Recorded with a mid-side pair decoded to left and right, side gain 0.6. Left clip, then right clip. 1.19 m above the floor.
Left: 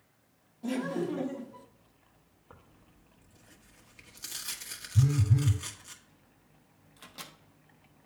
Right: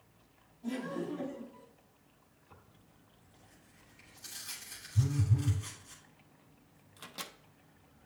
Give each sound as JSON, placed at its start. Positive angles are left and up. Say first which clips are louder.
{"t": 0.6, "sound": "laughter", "louder": "left 5 dB", "azimuth_deg": 50, "distance_m": 1.2}
{"t": 2.5, "sound": "tearing paper", "louder": "left 4 dB", "azimuth_deg": 60, "distance_m": 1.4}
{"t": 5.0, "sound": "a phone buzzing", "louder": "left 5 dB", "azimuth_deg": 50, "distance_m": 2.0}
{"t": 7.0, "sound": "a microwave", "louder": "right 2 dB", "azimuth_deg": -15, "distance_m": 0.6}